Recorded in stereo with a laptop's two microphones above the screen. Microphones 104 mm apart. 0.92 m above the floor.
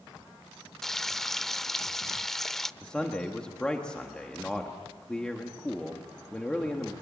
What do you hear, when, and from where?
0.8 s frying: 5° left (ahead or behind), 0.6 m
2.8 s a man speaking: 10° left (ahead or behind), 1.3 m